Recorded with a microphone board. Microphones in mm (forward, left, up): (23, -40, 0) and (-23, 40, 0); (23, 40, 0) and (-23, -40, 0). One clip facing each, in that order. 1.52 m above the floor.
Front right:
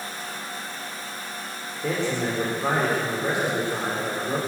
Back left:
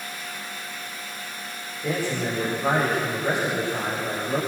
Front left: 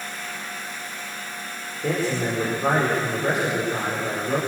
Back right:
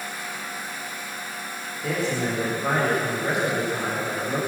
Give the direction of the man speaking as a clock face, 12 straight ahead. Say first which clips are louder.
Front right 1 dB, front left 2 dB; 12 o'clock.